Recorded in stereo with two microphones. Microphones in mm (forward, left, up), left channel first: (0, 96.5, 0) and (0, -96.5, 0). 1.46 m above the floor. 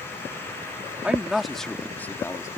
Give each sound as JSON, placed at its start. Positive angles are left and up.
{"t": 1.0, "sound": "a man speaking", "side_deg": -5}